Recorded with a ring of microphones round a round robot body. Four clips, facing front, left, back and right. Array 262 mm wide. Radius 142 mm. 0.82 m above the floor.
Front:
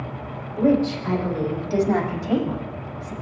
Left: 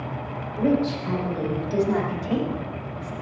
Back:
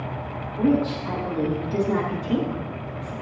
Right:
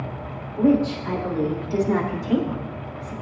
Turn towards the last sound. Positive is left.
turn(degrees=5)